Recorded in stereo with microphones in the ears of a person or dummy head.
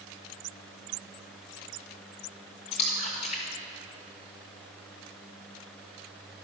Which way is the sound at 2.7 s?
45° left (ahead or behind).